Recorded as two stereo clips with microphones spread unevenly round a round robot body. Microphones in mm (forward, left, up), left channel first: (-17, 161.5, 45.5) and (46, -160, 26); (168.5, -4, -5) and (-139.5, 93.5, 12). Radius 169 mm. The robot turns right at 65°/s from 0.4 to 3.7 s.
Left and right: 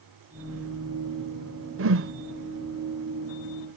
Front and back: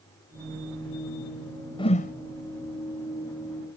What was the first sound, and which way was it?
A whoosh, 85° right.